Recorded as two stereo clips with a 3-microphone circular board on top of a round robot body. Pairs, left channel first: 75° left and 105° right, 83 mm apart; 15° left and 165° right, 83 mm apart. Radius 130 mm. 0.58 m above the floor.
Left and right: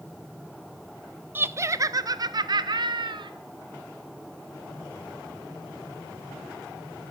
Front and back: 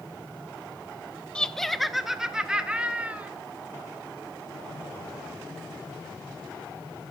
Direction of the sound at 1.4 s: 55° right.